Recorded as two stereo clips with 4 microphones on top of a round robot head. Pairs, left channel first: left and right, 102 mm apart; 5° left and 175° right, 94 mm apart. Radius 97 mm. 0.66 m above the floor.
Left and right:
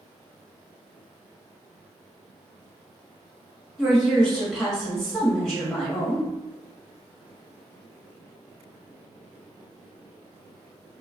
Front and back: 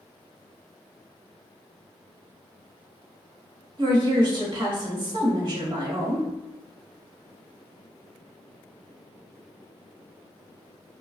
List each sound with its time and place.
3.8 s a woman speaking: 175° left, 1.4 m